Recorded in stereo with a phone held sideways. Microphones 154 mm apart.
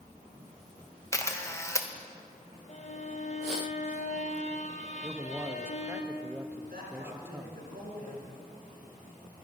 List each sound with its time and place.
1.1 s a camera shutter: 20° left (ahead or behind), 0.7 m
2.7 s a violin: 50° left (ahead or behind), 0.9 m
5.0 s a man speaking: 15° right (ahead or behind), 0.6 m
6.7 s a man speaking: 80° right, 5 m